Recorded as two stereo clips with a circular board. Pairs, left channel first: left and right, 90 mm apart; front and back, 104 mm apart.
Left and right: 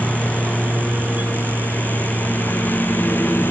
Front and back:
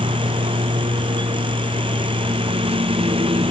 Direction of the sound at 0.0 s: 165° left.